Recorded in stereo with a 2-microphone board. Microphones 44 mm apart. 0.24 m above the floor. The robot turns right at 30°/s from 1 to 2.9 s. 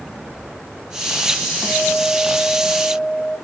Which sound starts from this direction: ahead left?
A guitar, at 1.6 s.